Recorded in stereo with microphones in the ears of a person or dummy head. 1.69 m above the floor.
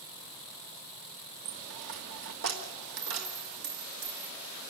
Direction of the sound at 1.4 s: 55° right (ahead or behind).